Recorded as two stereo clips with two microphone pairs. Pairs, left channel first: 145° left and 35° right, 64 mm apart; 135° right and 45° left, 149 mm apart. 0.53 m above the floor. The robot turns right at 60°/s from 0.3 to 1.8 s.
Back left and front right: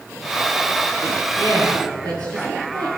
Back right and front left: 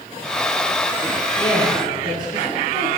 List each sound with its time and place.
1.4 s a woman speaking: 65° right, 10 m; by 2.9 s 40° right, 10 m